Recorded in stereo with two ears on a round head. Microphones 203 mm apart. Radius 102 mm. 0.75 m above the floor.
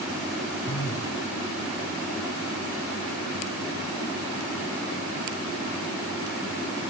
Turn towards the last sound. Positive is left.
turn(degrees=80)